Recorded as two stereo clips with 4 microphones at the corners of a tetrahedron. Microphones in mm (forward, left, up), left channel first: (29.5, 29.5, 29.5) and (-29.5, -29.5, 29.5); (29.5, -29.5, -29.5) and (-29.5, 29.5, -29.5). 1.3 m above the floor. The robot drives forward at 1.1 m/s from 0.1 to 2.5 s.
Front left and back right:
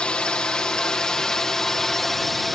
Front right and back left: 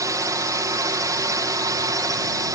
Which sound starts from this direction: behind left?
A drone, at 0.0 s.